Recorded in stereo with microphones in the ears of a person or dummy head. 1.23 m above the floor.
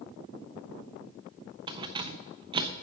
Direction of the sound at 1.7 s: 25° right (ahead or behind).